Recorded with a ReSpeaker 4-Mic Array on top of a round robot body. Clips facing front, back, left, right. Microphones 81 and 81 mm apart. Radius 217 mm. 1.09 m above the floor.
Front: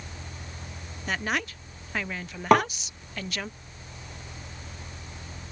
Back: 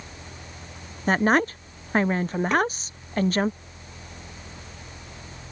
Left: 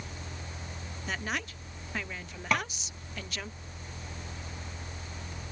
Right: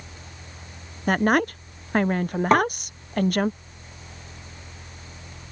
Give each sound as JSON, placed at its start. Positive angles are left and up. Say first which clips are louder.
{"t": 1.1, "sound": "a woman speaking", "louder": "back 10 dB, right 16 dB", "azimuth_deg": -130}
{"t": 2.5, "sound": "tapping", "louder": "front 4 dB, right 11 dB", "azimuth_deg": -35}